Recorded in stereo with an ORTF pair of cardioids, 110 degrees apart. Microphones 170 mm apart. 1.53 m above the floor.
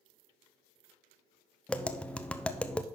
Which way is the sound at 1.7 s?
5° left.